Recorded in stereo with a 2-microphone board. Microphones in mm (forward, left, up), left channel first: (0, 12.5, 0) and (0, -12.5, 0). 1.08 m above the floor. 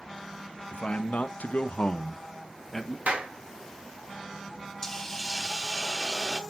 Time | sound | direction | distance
0.7 | a man speaking | 65° left (ahead or behind) | 0.9 m
3.1 | a clap | 75° right (ahead or behind) | 1.5 m
4.8 | a hiss | 15° left (ahead or behind) | 0.8 m